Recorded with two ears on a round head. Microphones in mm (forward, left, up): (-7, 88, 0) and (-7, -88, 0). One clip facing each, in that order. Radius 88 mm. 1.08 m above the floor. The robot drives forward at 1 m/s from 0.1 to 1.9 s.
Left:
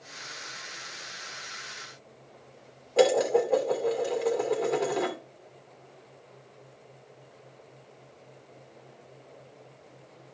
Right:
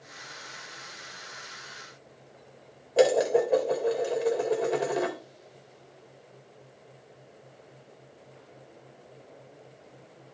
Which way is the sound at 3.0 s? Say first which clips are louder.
Even; 10° right (ahead or behind).